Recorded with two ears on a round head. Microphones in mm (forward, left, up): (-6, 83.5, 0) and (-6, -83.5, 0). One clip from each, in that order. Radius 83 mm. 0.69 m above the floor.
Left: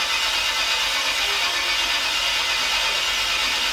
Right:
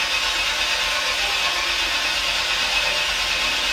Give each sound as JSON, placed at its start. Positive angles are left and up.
{"t": 0.0, "sound": "an engine running", "side_deg": 40, "distance_m": 0.7}